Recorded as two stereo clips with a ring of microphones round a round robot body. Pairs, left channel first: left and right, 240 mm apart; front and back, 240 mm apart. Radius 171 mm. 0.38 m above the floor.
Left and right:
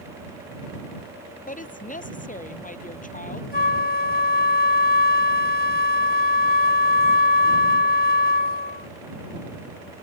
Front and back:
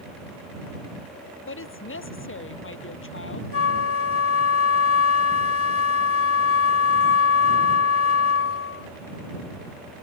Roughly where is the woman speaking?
Ahead left.